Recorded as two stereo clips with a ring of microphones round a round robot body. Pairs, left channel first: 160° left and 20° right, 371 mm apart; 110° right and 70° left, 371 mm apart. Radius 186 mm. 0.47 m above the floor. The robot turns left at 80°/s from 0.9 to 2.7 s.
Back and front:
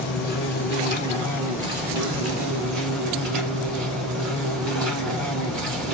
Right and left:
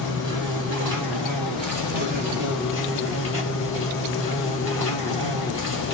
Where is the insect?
110° left, 2.5 m; by 6.0 s 35° right, 2.5 m.